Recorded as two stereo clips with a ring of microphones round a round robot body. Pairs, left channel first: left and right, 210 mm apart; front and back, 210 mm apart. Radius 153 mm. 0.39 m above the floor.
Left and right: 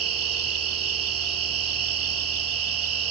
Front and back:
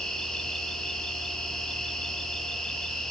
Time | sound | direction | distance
0.0 | an insect | 90° right | 1.1 m